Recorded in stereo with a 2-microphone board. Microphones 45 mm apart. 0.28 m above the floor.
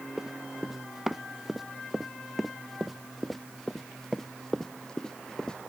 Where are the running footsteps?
10° right (ahead or behind); by 5.6 s 15° left (ahead or behind).